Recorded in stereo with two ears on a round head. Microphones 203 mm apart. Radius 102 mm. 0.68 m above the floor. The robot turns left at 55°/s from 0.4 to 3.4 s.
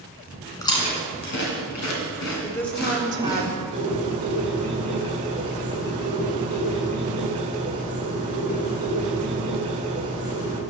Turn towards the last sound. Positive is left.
turn(degrees=-30)  # may be behind; listen again after turning